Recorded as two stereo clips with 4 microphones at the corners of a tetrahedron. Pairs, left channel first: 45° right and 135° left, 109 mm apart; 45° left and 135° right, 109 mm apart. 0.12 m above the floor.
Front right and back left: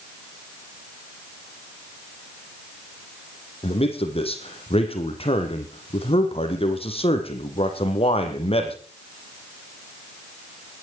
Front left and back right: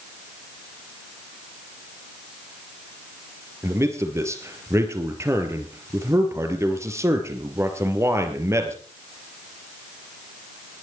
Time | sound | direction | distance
3.6 | a man speaking | 70° right | 3 m